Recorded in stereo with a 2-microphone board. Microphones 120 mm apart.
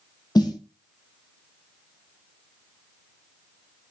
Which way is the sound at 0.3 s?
35° left (ahead or behind).